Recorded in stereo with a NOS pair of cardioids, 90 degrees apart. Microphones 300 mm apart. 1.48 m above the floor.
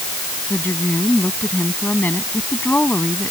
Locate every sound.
0.5 s a woman speaking: 5° left